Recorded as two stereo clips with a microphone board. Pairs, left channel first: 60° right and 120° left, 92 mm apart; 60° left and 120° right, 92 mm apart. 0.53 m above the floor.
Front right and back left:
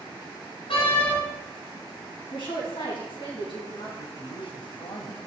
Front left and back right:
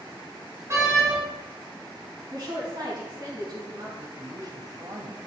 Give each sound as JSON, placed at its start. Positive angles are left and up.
{"t": 0.7, "sound": "a door slam", "azimuth_deg": -65, "distance_m": 5.0}
{"t": 2.3, "sound": "a woman speaking", "azimuth_deg": -85, "distance_m": 5.0}
{"t": 4.0, "sound": "a man speaking", "azimuth_deg": -75, "distance_m": 3.0}